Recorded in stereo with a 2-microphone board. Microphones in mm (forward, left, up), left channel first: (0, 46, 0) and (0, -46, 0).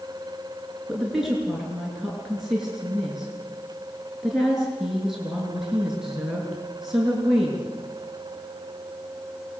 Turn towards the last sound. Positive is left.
turn(degrees=-5)  # may be behind; listen again after turning